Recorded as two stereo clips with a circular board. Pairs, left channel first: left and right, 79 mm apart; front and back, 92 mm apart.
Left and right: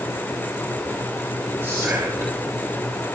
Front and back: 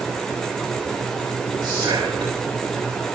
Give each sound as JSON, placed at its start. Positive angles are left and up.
{"t": 1.6, "sound": "whispering", "azimuth_deg": -145, "distance_m": 4.5}